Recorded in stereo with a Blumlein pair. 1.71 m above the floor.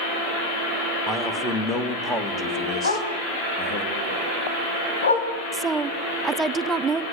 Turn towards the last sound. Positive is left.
turn(degrees=-15)